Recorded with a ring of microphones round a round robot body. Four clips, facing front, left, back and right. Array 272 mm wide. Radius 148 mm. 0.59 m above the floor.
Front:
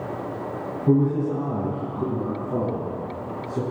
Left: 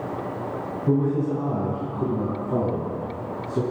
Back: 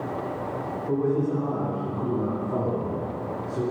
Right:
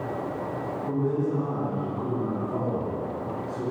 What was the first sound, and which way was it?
A man speaking, 30° left.